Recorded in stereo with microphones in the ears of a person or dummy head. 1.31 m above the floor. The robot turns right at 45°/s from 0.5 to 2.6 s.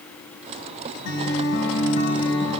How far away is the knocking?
I don't hear knocking.